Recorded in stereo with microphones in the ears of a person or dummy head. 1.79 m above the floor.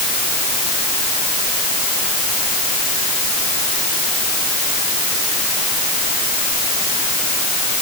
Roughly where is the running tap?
I don't hear a running tap.